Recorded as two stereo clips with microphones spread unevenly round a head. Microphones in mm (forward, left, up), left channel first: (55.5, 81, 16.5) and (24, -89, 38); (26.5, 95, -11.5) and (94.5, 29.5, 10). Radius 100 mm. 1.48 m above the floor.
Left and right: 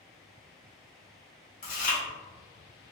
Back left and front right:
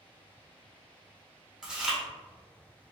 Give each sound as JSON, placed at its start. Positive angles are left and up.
{"t": 1.6, "sound": "chewing", "azimuth_deg": 35, "distance_m": 1.5}